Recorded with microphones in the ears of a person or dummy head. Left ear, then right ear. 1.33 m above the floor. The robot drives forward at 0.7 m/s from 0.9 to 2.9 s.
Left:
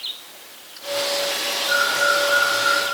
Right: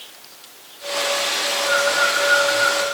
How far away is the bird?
About 1.8 m.